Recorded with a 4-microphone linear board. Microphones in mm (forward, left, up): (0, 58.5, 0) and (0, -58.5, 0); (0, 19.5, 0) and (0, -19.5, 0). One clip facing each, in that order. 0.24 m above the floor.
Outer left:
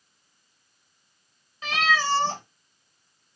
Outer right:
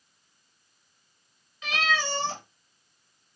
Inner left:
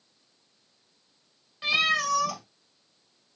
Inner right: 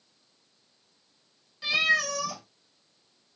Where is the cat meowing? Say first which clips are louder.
Outer left 4 dB, even; 40° left (ahead or behind), 1.1 m.